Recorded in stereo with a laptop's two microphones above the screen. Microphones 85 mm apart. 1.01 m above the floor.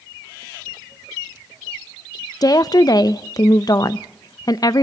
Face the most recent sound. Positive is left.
turn(degrees=50)  # may be behind; listen again after turning